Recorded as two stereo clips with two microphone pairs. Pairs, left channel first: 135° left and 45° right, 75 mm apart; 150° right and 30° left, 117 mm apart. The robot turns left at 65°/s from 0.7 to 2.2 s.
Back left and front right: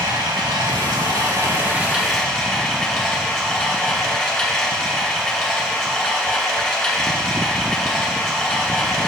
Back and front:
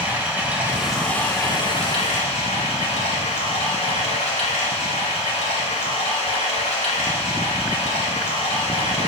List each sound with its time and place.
0.0 s running water: 45° right, 2 m; by 9.1 s 140° right, 2 m